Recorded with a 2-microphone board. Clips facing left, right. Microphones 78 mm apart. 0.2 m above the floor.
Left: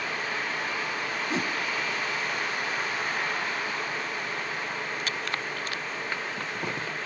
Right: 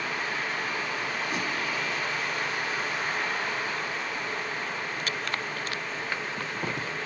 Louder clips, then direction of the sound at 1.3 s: Left 4 dB; 30° left (ahead or behind).